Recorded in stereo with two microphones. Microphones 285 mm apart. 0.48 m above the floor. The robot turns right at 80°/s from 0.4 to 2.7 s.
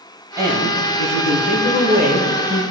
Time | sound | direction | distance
0.4 | a woman speaking | 165° right | 5.5 m